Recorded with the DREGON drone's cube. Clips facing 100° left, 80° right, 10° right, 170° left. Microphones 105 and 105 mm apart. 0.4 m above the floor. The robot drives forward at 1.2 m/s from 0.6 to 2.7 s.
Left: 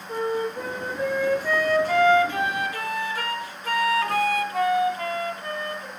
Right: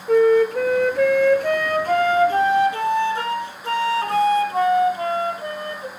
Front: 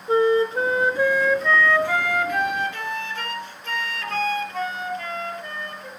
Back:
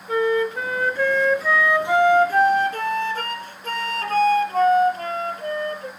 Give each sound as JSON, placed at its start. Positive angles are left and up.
{"t": 0.1, "sound": "a flute", "azimuth_deg": -70, "distance_m": 1.7}